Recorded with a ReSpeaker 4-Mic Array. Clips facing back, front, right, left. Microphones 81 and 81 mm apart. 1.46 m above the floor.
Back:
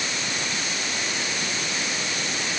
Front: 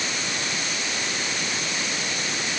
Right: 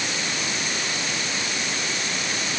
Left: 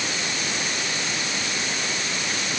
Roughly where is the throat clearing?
I don't hear throat clearing.